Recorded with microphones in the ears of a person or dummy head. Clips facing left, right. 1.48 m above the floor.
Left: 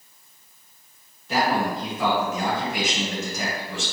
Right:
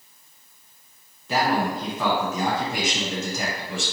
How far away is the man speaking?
About 1.8 m.